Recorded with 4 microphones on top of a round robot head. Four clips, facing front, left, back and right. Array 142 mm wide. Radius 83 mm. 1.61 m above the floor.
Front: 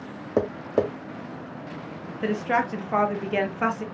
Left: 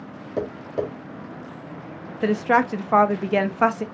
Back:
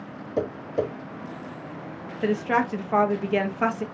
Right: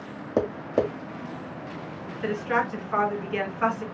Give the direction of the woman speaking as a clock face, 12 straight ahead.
9 o'clock.